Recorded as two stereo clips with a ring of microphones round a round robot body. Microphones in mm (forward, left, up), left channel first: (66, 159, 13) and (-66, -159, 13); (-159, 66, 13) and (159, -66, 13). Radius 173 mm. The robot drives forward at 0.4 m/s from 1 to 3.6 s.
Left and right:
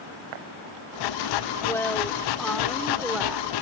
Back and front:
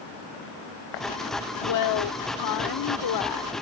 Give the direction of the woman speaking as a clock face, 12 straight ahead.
7 o'clock.